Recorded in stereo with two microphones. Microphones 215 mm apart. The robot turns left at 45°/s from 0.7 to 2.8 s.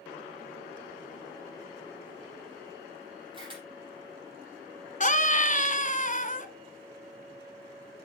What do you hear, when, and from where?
3.3 s a camera shutter: 25° right (ahead or behind), 5.5 m
5.0 s a scream: 40° left (ahead or behind), 1.4 m